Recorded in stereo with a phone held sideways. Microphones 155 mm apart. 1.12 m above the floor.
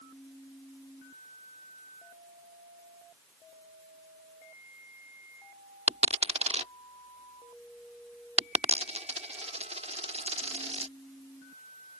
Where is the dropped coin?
40° right (ahead or behind).